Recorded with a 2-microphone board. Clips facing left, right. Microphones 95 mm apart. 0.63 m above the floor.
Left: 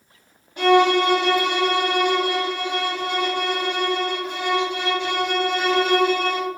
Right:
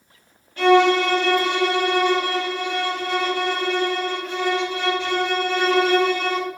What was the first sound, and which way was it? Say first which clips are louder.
A violin: right 1 dB; 20° left (ahead or behind).